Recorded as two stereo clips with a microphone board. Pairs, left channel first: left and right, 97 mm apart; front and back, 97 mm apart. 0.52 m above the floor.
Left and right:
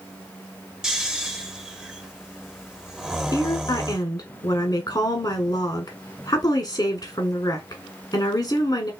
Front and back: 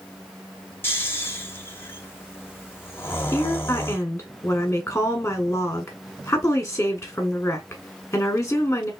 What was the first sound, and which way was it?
Snoring, 20° right.